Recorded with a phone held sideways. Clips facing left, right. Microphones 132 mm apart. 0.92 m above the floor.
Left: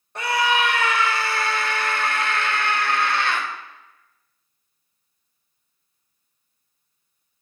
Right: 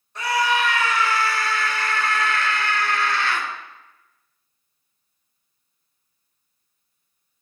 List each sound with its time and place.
0.1 s a scream: 60° left (ahead or behind), 1.4 m